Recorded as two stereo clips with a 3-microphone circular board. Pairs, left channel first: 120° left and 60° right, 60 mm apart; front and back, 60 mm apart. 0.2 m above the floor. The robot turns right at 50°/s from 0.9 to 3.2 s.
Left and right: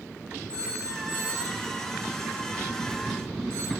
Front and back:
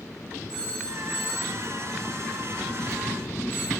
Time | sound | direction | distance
0.5 | a phone ringing | 170° right | 4.5 m